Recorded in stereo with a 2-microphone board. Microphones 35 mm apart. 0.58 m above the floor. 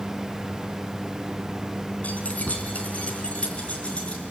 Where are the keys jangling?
50° left (ahead or behind), 3.5 m; by 4.3 s 35° left (ahead or behind), 6 m.